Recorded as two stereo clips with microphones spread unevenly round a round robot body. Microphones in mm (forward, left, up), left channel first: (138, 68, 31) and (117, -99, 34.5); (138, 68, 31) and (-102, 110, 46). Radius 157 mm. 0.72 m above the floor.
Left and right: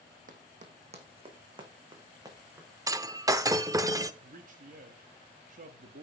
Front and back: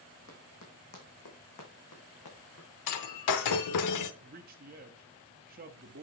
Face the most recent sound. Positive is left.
turn(degrees=-135)